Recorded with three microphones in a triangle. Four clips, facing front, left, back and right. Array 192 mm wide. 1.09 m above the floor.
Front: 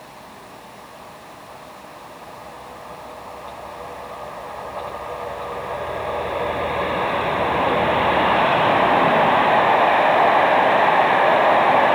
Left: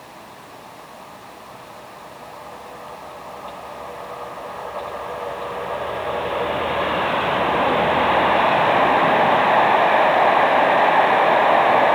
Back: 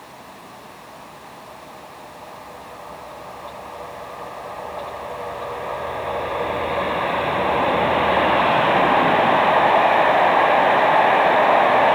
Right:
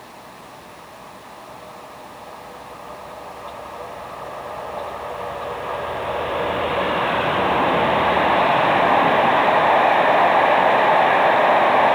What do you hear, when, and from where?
Only background noise.